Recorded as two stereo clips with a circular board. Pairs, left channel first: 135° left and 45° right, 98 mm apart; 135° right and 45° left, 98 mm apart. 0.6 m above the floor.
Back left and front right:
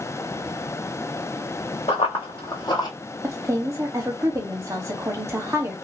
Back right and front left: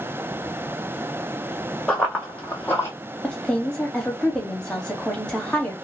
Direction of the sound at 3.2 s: 65° right.